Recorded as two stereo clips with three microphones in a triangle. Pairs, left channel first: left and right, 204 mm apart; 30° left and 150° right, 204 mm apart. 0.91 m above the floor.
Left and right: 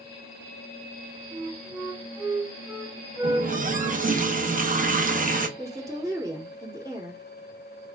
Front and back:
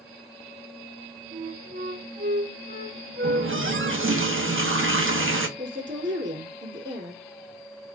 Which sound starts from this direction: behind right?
A running tap, at 3.2 s.